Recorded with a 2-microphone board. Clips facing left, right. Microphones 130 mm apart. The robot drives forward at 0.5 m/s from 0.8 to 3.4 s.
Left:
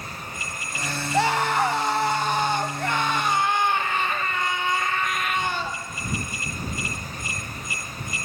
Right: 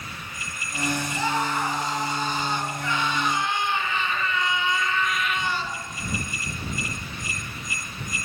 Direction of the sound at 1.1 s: 70° left (ahead or behind).